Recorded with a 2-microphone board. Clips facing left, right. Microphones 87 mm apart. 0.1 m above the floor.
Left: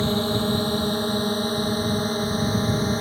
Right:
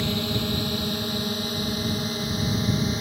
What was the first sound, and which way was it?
A drone, 35° left (ahead or behind).